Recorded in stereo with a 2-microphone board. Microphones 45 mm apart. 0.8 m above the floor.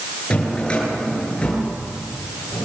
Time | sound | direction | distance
0.3 | a drawer | 20° left (ahead or behind) | 8 m